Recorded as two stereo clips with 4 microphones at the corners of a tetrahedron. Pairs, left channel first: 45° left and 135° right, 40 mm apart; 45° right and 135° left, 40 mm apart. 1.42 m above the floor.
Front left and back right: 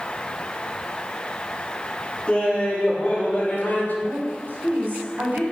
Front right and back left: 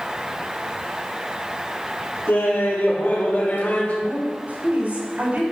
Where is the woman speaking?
Straight behind, 5.5 m.